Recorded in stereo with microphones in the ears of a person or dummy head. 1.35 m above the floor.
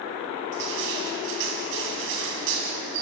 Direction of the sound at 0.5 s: 60° right (ahead or behind).